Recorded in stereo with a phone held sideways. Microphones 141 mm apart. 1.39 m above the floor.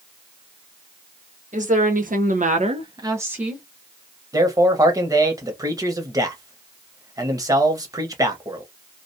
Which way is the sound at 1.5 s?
60° right (ahead or behind).